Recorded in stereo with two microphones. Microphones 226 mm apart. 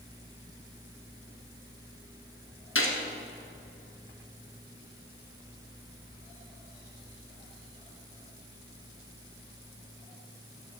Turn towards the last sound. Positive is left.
turn(degrees=70)  # may be behind; listen again after turning